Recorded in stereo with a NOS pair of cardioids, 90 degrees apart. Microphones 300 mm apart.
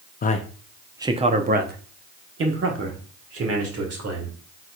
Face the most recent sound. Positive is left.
turn(degrees=-55)